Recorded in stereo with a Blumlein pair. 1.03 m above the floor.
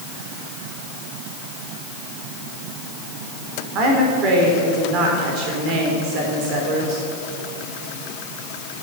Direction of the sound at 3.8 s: 35° right.